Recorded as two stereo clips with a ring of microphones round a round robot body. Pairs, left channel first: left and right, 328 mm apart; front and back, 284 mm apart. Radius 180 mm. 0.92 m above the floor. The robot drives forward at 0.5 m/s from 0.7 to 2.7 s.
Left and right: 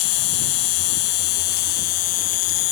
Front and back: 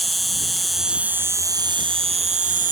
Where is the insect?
90° left; by 2.7 s 120° left.